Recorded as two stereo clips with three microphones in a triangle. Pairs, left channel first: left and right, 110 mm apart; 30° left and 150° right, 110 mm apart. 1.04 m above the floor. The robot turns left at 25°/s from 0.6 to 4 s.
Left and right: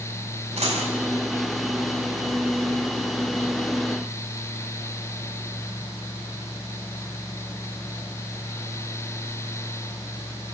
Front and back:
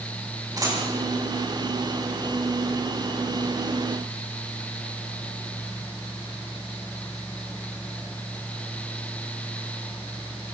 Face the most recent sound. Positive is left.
turn(degrees=180)